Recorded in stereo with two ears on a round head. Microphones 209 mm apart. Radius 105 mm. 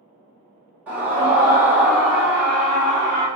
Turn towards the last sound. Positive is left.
turn(degrees=5)  # may be behind; listen again after turning